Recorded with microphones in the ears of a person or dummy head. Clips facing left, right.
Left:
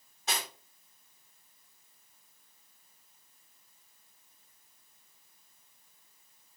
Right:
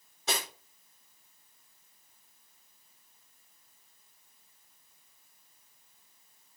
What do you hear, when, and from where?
0.3 s cutlery clinking: 80° right, 3 m